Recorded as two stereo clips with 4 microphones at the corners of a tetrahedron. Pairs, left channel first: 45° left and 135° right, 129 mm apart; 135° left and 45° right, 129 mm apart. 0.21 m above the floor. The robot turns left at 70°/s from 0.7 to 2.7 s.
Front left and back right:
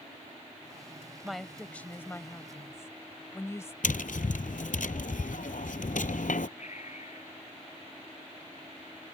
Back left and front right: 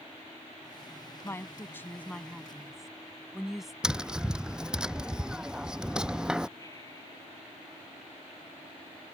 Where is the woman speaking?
140° left; by 3.7 s 40° left.